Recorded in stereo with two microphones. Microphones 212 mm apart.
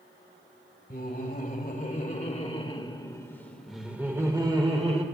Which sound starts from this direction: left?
Laughter, at 0.9 s.